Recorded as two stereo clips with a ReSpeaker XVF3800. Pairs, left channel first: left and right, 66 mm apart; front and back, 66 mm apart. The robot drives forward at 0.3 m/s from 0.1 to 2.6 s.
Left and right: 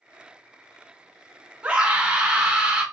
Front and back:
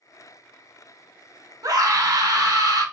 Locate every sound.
1.6 s a scream: 165° right, 1.1 m